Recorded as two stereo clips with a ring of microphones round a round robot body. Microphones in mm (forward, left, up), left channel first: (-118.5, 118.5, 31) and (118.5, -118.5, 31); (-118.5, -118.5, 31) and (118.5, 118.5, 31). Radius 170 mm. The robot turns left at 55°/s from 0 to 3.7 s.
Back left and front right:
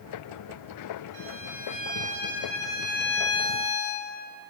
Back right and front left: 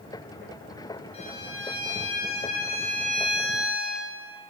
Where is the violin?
60° right, 5.5 m; by 4.1 s 160° left, 5.5 m.